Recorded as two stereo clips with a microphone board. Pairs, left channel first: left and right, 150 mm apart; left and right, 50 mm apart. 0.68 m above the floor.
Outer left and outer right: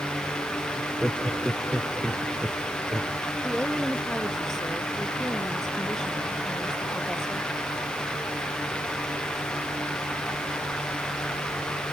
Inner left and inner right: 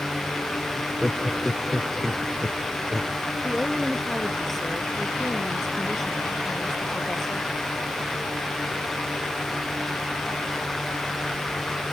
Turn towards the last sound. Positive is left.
turn(degrees=5)  # may be behind; listen again after turning